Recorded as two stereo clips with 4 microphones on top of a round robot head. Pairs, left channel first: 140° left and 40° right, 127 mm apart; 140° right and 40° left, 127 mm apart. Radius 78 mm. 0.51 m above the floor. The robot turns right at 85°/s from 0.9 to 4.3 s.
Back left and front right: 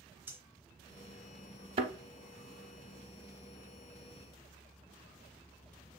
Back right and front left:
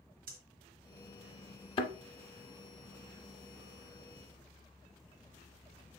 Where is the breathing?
35° left, 1.0 m.